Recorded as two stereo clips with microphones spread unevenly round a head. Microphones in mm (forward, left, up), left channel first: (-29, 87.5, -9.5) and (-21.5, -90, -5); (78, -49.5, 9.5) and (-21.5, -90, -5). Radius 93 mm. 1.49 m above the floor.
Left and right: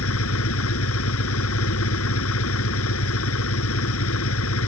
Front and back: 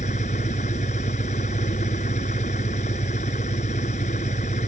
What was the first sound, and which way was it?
An engine running, 75° left.